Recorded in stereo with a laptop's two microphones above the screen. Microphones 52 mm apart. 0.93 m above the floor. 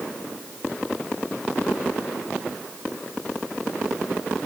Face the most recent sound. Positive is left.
No sound to turn to.